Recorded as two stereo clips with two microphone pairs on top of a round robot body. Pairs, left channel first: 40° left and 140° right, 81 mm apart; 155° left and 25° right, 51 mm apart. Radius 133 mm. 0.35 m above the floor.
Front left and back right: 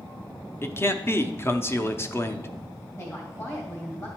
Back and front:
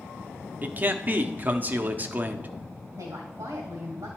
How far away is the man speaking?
About 0.9 m.